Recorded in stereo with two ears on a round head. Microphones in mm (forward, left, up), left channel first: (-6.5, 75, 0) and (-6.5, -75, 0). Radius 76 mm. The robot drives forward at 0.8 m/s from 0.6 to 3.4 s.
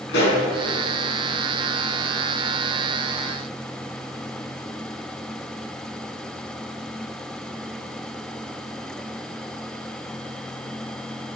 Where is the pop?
70° left (ahead or behind), 4 m.